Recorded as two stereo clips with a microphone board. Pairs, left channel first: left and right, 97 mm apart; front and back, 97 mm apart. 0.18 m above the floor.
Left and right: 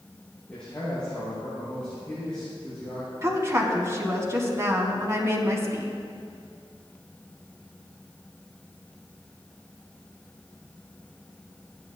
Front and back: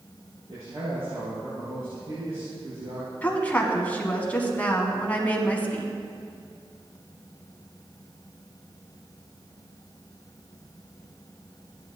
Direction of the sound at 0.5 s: 170° left.